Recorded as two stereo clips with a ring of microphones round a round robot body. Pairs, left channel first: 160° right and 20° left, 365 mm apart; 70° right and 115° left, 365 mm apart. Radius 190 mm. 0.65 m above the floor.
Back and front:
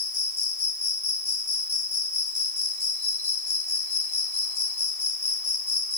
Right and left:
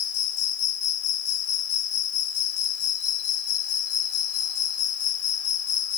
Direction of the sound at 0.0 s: 115° right.